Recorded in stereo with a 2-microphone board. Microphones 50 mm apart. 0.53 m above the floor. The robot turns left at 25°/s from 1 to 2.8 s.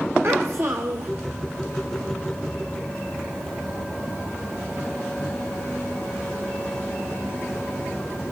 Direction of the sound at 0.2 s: 50° right (ahead or behind).